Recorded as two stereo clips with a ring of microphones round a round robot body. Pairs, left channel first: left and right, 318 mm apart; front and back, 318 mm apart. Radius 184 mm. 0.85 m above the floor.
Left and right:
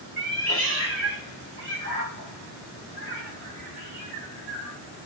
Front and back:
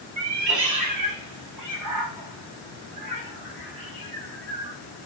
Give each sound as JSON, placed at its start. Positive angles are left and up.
{"t": 0.2, "sound": "a cat meowing", "azimuth_deg": -145, "distance_m": 1.4}